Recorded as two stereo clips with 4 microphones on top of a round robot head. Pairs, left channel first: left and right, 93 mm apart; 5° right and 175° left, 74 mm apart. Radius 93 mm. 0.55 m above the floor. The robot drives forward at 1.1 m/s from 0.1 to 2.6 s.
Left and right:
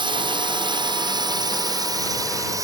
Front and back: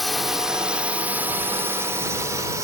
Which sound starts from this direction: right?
A drone, at 0.0 s.